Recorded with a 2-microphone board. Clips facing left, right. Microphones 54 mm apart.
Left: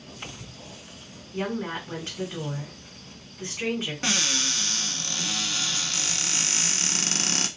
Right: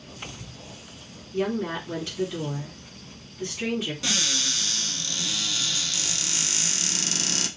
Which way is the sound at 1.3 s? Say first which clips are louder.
Right 3 dB; 30° left (ahead or behind).